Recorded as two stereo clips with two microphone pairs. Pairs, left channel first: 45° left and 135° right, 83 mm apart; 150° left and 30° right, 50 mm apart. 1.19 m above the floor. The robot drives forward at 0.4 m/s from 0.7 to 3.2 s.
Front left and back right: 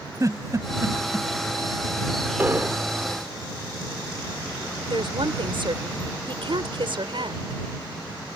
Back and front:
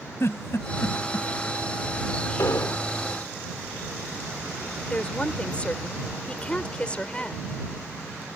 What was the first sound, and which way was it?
A giggle, straight behind.